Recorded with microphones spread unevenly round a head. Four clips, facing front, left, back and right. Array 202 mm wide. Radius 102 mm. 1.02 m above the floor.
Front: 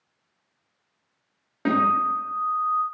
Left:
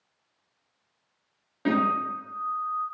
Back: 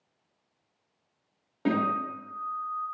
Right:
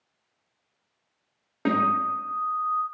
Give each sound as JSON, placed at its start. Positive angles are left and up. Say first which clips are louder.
{"t": 1.6, "sound": "a guitar", "louder": "right 2 dB, front 6 dB", "azimuth_deg": -75, "distance_m": 0.7}